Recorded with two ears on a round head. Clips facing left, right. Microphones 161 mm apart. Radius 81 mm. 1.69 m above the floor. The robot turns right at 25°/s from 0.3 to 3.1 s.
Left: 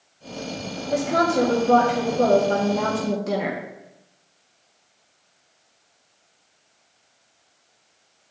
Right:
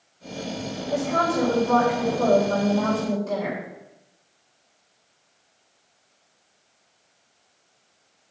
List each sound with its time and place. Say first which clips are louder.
0.9 s a woman speaking: left 3 dB; 20° left, 1.7 m; by 3.6 s 75° left, 1.7 m